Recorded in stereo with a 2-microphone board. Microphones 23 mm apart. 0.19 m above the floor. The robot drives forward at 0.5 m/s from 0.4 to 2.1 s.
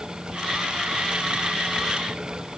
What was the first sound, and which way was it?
Only background noise.